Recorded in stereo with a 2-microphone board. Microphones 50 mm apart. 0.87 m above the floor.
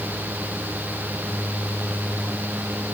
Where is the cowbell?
I don't hear a cowbell.